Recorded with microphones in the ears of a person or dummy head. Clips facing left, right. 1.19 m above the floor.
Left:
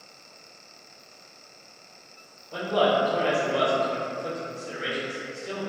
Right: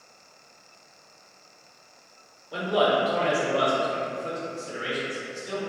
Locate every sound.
2.5 s a man speaking: 15° right (ahead or behind), 0.8 m; by 5.6 s 75° left (ahead or behind), 1.2 m